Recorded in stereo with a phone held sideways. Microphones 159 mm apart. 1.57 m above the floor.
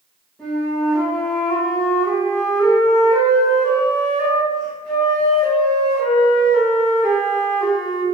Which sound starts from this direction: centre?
A flute, at 0.4 s.